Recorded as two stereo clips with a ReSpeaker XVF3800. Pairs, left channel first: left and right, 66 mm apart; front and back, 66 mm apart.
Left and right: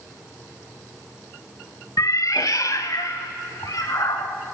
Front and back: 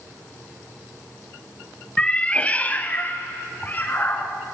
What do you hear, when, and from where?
2.0 s a cat meowing: 75° left, 0.8 m; by 4.3 s 60° left, 2.5 m